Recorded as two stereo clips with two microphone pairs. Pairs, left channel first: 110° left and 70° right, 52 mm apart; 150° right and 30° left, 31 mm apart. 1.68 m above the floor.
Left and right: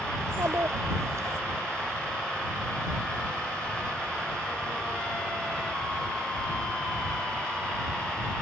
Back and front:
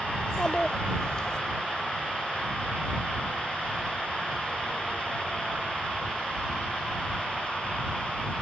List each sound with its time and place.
0.2 s a child speaking: 85° right